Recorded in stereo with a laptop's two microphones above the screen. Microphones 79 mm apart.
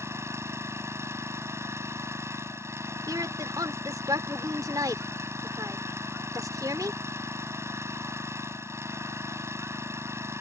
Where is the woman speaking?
50° right (ahead or behind).